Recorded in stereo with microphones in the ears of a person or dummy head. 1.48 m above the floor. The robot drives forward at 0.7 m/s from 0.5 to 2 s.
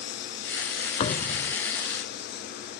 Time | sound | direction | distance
0.0 | a lawn mower | 65° left (ahead or behind) | ?
1.0 | a thud | 35° left (ahead or behind) | ?